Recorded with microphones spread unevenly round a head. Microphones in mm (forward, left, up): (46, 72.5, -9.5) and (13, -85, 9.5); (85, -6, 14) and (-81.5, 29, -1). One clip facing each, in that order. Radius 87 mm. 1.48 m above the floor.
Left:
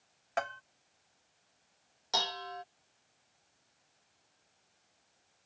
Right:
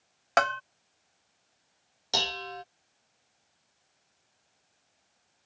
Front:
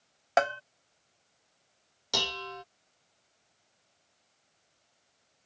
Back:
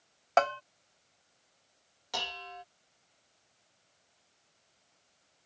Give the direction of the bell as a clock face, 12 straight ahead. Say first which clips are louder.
Right 9 dB, even; 3 o'clock.